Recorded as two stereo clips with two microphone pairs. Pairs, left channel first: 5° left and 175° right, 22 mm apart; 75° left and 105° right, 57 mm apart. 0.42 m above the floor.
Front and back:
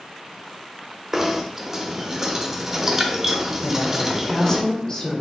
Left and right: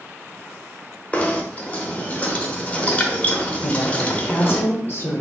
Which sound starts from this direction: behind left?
Knocking, at 1.1 s.